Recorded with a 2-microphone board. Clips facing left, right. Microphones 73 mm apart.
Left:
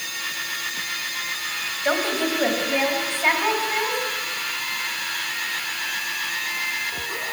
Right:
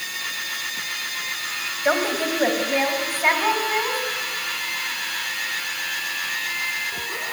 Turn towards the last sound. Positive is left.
turn(degrees=-5)  # may be behind; listen again after turning